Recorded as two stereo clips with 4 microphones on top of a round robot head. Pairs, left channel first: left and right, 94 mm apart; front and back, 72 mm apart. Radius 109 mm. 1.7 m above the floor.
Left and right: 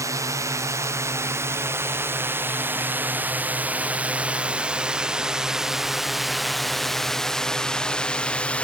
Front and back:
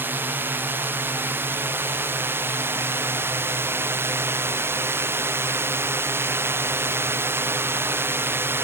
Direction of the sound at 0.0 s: 130° right.